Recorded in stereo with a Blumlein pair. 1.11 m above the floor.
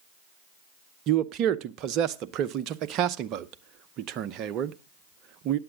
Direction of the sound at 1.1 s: 35° right.